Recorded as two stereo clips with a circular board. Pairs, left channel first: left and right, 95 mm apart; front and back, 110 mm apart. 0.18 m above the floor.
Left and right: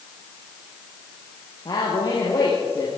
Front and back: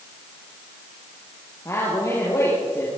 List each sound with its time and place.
1.6 s a man speaking: 60° left, 6 m